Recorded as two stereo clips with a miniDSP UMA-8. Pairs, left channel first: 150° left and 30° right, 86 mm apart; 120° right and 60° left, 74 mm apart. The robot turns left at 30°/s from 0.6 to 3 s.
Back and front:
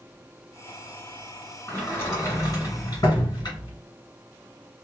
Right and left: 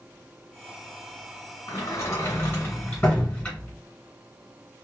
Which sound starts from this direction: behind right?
A sliding door, at 1.7 s.